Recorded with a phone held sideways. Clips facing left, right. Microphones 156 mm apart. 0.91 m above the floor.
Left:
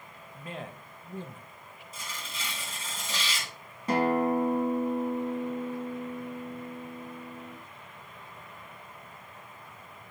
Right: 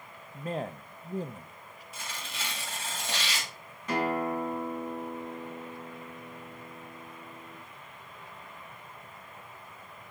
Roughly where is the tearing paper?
Right.